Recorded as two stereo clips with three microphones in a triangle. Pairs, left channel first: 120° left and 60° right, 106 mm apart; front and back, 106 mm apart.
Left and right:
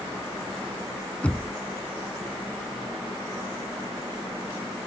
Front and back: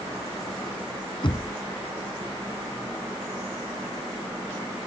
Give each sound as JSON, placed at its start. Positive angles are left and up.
{"t": 1.2, "sound": "knocking", "azimuth_deg": 40}